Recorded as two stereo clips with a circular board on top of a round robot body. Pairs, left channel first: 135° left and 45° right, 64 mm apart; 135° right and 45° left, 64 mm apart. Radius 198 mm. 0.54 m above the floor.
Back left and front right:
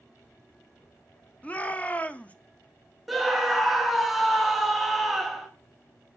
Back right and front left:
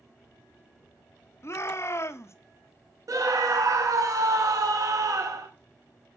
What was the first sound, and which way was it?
A shout, 160° right.